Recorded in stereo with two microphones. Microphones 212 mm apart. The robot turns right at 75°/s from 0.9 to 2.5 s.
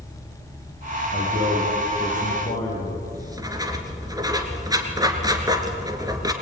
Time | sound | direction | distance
1.1 | a man speaking | 65° right | 8 m
3.1 | writing | 20° right (ahead or behind) | 2 m